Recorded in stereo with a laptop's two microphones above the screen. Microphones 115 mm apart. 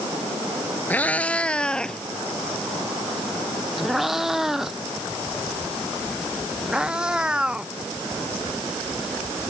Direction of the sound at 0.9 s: 15° left (ahead or behind).